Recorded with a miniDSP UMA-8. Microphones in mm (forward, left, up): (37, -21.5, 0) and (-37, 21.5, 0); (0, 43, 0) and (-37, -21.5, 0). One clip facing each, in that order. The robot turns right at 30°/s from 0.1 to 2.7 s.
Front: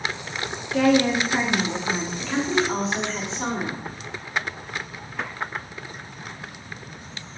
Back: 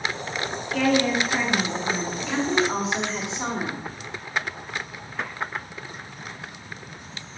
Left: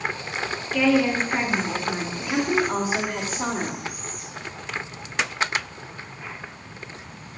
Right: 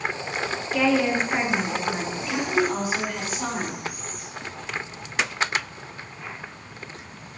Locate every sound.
0.7 s a woman speaking: 50° right, 0.7 m; by 2.1 s 10° right, 0.7 m
2.2 s a woman speaking: 75° left, 1.2 m; by 3.9 s 90° left, 1.2 m